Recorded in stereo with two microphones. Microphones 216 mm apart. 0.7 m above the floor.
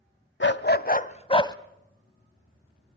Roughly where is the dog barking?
Left.